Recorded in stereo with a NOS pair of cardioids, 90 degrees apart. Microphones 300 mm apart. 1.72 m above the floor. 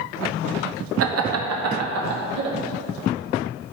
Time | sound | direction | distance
1.0 | laughter | 50° right | 0.9 m